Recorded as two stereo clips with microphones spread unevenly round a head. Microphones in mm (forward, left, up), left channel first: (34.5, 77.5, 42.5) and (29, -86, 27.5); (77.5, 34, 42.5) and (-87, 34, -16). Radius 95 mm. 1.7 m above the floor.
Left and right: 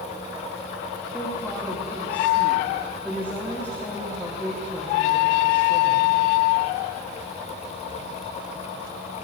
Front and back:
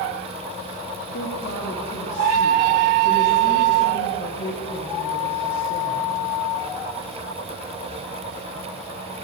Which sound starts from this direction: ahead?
A woman speaking, at 1.1 s.